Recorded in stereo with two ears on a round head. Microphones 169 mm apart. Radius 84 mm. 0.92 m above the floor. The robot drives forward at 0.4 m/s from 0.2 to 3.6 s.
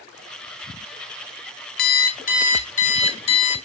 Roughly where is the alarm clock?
Left.